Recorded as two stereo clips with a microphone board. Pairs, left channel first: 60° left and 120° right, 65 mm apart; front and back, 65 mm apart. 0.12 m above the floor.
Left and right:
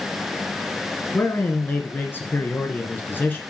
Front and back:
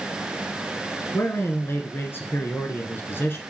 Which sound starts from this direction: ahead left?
A man speaking, at 1.1 s.